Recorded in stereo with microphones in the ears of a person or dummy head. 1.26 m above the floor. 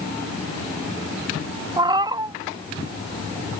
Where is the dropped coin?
I don't hear a dropped coin.